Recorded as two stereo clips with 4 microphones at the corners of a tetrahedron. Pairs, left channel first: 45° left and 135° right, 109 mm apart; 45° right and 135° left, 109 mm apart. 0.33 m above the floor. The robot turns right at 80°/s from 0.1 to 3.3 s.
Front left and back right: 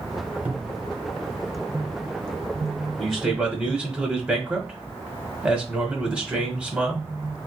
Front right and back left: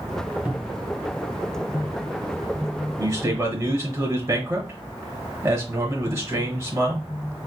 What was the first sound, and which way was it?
A cupboard door, straight behind.